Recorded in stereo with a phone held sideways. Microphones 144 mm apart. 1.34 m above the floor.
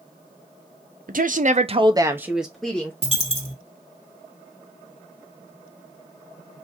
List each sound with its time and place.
1.1 s a woman speaking: 70° right (ahead or behind), 0.7 m; by 2.9 s 10° left (ahead or behind), 0.9 m
3.0 s a dropped coin: 40° left (ahead or behind), 1.7 m